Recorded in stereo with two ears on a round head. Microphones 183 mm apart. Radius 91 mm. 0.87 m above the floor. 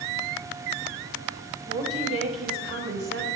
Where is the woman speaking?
60° right (ahead or behind), 4 m.